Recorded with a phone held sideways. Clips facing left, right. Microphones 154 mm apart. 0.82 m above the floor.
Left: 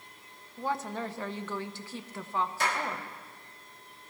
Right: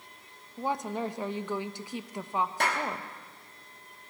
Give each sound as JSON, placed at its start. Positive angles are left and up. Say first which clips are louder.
{"t": 0.6, "sound": "a woman speaking", "louder": "right 2 dB", "side_deg": -15, "distance_m": 0.5}
{"t": 2.6, "sound": "a clap", "louder": "right 1 dB", "side_deg": -60, "distance_m": 1.6}